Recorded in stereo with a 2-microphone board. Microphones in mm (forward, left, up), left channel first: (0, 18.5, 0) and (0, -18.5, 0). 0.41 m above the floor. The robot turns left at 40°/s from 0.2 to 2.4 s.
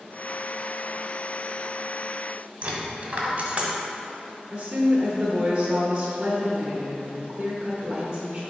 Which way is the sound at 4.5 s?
25° right (ahead or behind).